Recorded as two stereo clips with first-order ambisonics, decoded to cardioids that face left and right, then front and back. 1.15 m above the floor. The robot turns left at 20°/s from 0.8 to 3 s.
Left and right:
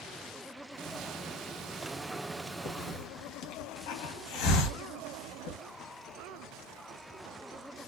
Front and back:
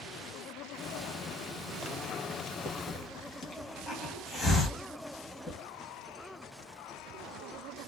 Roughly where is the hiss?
Left.